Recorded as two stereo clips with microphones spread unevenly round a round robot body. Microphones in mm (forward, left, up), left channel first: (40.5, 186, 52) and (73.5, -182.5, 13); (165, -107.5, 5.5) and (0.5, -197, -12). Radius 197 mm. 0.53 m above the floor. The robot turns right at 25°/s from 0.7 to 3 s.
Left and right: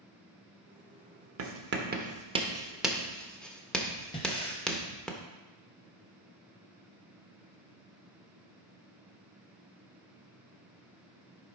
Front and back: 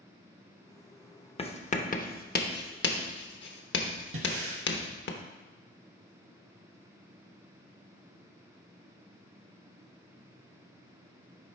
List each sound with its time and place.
1.4 s writing: 35° right, 1.0 m; by 5.1 s 5° left, 1.0 m
4.1 s breathing: 170° left, 0.6 m